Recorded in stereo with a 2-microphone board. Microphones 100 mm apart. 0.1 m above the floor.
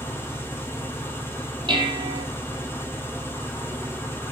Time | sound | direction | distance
0.0 | an engine running | 25° left (ahead or behind) | 1.6 m
1.7 | dishes clattering | 60° right (ahead or behind) | 1.9 m